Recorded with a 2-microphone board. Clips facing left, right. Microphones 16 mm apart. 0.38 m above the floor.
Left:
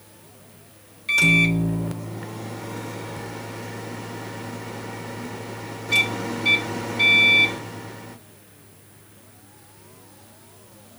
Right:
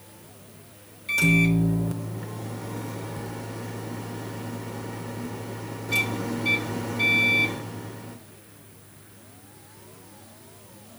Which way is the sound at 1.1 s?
25° left (ahead or behind).